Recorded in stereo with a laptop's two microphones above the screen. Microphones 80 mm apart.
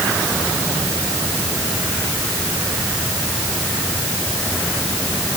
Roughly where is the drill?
No drill in this recording.